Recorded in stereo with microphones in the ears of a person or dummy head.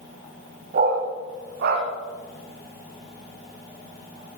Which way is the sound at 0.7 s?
45° right (ahead or behind).